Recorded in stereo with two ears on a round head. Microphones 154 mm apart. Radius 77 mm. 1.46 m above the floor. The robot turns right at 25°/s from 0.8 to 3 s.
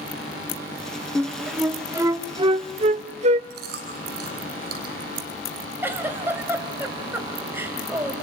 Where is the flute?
5° left (ahead or behind), 0.7 m; by 3.4 s 45° right (ahead or behind), 0.7 m.